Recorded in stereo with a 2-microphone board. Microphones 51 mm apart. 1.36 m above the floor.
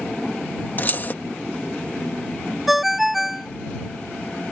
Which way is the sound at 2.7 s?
5° right (ahead or behind).